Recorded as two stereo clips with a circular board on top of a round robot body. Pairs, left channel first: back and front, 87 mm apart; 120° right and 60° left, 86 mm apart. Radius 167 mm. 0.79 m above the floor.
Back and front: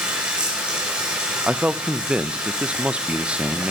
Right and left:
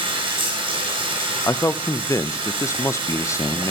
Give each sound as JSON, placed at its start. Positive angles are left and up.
{"t": 0.0, "sound": "running water", "azimuth_deg": 80, "distance_m": 3.0}
{"t": 1.5, "sound": "a man speaking", "azimuth_deg": -75, "distance_m": 0.6}